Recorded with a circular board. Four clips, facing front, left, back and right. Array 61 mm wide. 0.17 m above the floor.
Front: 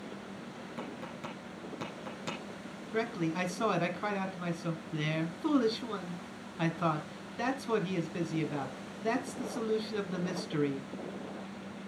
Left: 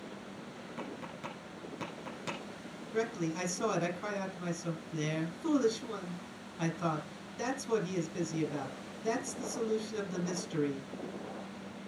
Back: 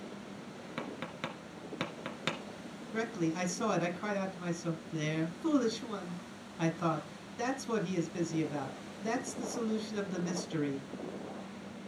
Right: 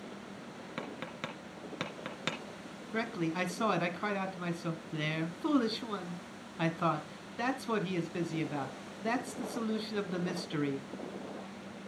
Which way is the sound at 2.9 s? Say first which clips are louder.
Even, front 1 dB; 60° right.